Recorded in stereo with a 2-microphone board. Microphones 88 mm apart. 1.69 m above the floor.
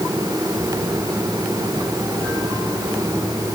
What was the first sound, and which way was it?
Only background noise.